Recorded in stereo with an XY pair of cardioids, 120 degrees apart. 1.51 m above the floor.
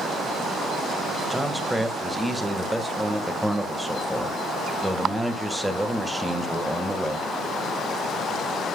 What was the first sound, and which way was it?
A man speaking, 10° right.